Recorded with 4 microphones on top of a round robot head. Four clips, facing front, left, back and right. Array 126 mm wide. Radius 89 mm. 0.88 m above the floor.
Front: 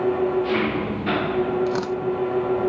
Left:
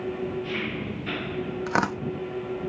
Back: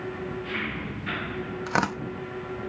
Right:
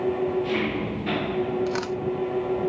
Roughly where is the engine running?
Ahead.